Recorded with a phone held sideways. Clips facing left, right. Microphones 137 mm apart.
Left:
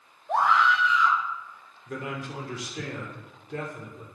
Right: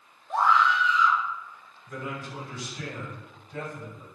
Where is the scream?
70° left (ahead or behind), 1.8 m.